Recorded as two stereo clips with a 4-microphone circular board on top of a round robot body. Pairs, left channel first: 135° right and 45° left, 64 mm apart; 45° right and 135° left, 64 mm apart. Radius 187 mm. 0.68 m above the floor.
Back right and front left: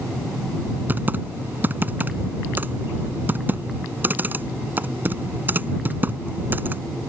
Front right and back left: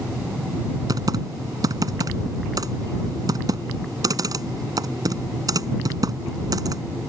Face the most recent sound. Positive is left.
turn(degrees=105)